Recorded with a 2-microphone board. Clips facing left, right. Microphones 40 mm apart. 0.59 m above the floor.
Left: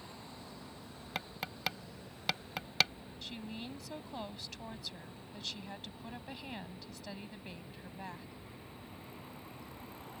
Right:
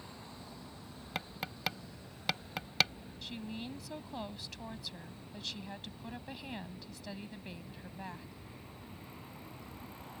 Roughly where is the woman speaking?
Centre.